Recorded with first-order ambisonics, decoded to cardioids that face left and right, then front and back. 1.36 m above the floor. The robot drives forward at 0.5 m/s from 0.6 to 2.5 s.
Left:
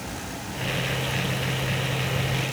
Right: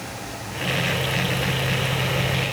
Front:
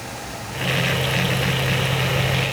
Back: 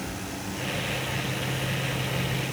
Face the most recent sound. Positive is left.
No sound to turn to.